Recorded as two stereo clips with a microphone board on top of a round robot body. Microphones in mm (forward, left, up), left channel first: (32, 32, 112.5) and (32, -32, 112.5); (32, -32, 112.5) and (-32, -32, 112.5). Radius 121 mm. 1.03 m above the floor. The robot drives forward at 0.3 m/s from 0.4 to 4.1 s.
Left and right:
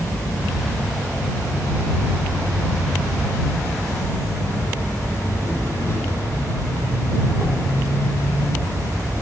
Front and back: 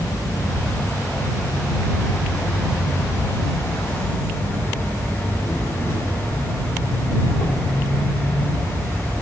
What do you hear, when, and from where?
0.0 s an insect: 35° left, 4 m; by 9.2 s 45° left, 3.5 m